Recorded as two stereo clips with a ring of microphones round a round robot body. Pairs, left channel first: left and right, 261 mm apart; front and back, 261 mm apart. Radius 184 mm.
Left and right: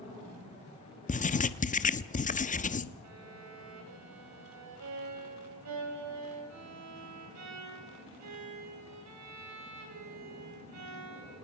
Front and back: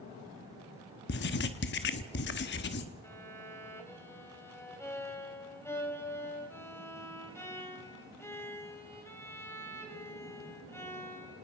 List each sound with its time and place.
1.1 s writing: 35° left, 1.0 m
3.0 s a violin: 80° right, 4.5 m